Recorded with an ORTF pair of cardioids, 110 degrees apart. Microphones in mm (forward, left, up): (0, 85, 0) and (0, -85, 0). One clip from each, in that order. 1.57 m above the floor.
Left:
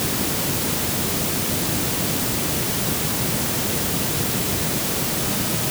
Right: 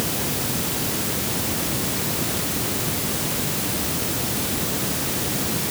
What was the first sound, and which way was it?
Only background noise.